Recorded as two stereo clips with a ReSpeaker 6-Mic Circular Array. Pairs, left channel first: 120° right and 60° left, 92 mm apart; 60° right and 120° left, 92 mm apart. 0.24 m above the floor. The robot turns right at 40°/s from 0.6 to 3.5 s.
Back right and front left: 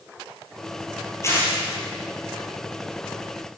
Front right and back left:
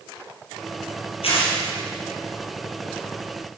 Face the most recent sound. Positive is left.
turn(degrees=30)